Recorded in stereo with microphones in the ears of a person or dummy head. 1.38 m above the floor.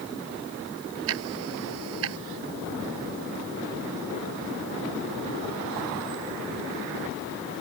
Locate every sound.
1.1 s ticking: 70° right (ahead or behind)